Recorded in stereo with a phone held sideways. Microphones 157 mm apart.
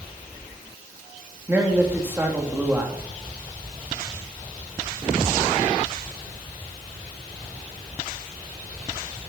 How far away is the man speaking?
About 3 m.